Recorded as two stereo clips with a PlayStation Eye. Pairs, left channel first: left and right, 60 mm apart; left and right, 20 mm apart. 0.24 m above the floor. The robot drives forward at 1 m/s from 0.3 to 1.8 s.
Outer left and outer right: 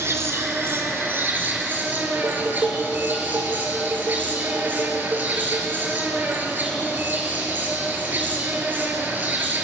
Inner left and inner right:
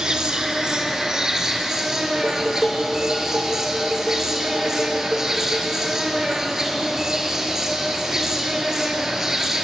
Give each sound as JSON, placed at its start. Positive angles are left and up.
{"t": 0.0, "sound": "an insect", "side_deg": -45, "distance_m": 3.0}
{"t": 2.1, "sound": "dishes clattering", "side_deg": -50, "distance_m": 8.5}